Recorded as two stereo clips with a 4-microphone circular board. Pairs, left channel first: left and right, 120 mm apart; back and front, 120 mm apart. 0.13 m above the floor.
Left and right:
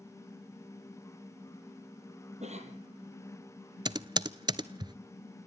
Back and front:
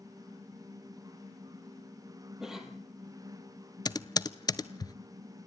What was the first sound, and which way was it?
A cough, 85° right.